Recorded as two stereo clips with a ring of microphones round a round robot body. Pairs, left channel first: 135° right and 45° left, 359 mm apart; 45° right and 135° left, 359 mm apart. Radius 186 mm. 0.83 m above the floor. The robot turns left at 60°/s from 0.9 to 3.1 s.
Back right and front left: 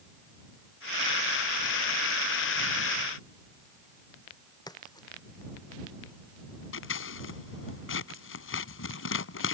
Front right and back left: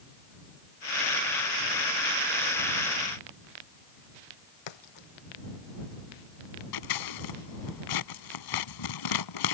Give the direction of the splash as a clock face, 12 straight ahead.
2 o'clock.